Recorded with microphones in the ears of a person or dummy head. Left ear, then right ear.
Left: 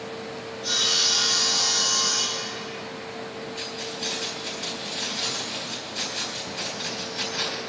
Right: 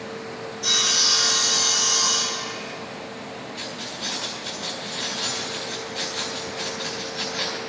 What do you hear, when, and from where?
0.6 s sawing: 50° right (ahead or behind), 4.5 m
3.5 s keys jangling: centre (ahead or behind), 4 m